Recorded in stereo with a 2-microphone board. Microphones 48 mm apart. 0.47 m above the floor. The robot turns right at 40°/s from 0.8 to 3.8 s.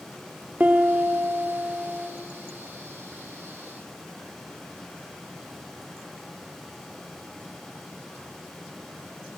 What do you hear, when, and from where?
0.6 s a piano: 100° right, 0.8 m; by 2.1 s 50° right, 0.8 m